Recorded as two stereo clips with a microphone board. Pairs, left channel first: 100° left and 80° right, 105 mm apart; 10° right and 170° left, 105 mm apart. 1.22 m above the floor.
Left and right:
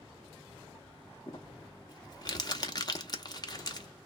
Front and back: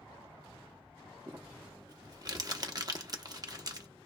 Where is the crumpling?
135° left, 0.8 m.